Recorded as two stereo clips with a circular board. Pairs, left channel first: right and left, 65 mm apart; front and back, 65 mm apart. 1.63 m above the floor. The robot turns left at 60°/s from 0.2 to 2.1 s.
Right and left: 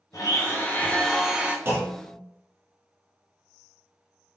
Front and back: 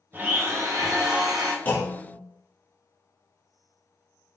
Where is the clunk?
50° left, 0.9 m; by 2.2 s 20° left, 0.9 m.